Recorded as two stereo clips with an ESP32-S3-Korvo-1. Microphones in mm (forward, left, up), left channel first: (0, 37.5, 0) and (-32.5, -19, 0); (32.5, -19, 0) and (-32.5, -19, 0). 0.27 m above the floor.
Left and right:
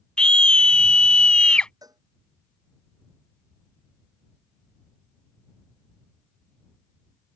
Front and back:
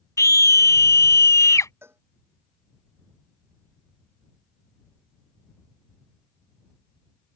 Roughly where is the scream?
Ahead.